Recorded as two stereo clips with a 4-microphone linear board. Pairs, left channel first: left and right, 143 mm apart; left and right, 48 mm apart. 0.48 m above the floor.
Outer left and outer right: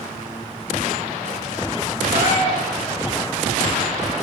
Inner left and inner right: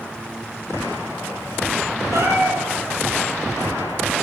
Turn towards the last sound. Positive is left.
turn(degrees=-85)